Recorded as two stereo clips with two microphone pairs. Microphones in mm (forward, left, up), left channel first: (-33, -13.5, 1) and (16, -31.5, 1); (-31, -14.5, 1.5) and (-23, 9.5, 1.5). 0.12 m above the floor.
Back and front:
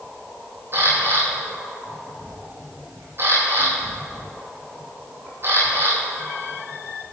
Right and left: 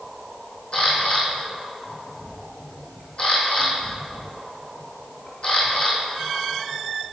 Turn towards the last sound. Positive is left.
turn(degrees=-70)